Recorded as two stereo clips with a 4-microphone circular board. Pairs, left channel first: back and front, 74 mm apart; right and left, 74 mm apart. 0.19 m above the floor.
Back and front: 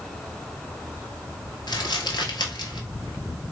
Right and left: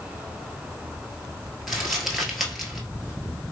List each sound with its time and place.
1.7 s crumpling: 175° left, 1.1 m